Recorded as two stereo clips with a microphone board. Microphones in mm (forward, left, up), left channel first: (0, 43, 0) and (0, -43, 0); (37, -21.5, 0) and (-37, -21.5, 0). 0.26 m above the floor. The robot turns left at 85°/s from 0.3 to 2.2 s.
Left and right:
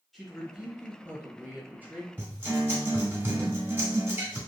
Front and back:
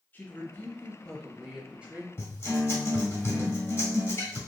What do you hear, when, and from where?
0.1 s a woman speaking: 5° left, 1.0 m; by 2.1 s 150° right, 1.0 m
2.2 s a guitar: 35° right, 1.5 m